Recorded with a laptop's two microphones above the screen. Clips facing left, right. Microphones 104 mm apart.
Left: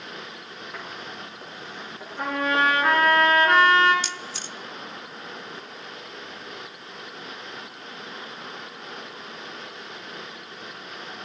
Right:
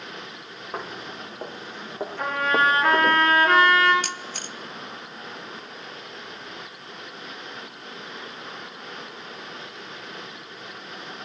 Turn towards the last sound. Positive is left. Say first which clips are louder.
# right 1 dB
turn(degrees=-50)  # may be behind; listen again after turning